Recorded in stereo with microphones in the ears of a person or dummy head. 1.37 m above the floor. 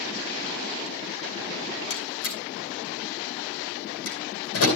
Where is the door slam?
80° left, 9.5 m.